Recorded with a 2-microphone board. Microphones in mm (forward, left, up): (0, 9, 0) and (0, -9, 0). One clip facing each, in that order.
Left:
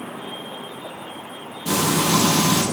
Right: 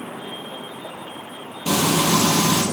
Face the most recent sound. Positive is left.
turn(degrees=-60)  # may be behind; listen again after turning